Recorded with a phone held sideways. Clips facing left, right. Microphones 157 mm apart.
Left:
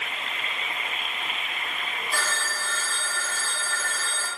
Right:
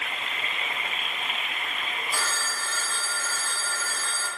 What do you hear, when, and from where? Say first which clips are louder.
2.1 s a phone ringing: left 4 dB; 75° left (ahead or behind), 1.6 m